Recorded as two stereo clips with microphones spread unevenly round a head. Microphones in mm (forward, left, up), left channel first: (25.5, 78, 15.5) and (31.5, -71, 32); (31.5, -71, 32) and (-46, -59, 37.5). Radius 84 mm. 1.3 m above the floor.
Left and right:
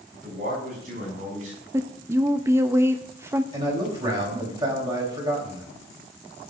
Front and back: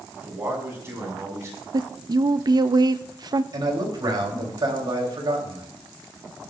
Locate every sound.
0.1 s a man speaking: 130° right, 6.5 m; by 1.6 s 135° right, 6 m
1.7 s a woman speaking: 165° right, 0.6 m
3.5 s a man speaking: 155° right, 3.5 m